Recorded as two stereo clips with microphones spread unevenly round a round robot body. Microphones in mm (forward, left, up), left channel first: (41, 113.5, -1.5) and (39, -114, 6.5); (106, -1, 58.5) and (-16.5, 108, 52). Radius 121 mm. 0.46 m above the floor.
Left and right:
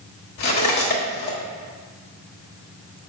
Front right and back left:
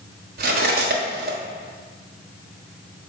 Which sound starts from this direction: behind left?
Cutlery clinking, at 0.4 s.